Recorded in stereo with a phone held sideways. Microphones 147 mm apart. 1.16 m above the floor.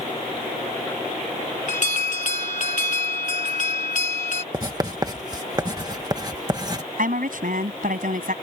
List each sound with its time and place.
1.7 s an alarm: 55° left (ahead or behind)
4.5 s writing: 25° right (ahead or behind)
7.0 s a woman speaking: 70° right (ahead or behind)